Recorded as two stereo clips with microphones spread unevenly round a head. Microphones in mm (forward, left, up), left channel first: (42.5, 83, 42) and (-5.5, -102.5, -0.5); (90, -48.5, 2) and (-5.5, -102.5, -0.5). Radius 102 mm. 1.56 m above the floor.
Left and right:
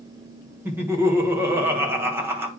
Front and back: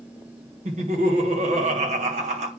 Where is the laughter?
Straight behind, 1.5 m.